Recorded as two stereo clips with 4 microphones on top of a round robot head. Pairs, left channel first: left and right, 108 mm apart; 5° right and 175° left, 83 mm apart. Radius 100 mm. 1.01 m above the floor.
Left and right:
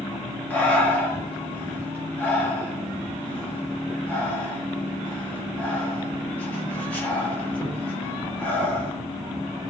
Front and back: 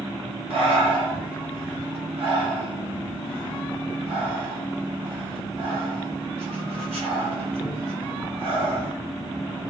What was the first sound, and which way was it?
Breathing, 170° left.